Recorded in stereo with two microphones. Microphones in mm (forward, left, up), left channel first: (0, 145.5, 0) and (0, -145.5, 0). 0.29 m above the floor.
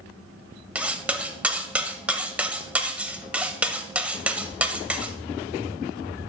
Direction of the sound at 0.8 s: 5° right (ahead or behind).